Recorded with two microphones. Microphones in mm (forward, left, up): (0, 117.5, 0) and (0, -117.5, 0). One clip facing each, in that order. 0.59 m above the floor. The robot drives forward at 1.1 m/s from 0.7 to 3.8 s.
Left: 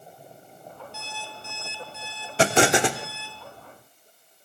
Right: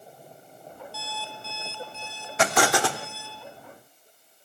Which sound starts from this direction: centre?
An alarm clock, at 0.9 s.